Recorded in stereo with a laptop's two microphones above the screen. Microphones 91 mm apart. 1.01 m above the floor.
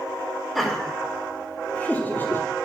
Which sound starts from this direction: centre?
Laughter, at 0.6 s.